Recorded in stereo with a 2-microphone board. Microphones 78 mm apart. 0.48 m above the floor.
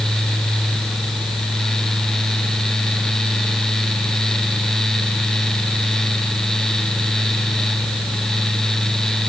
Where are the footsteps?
No footsteps in this recording.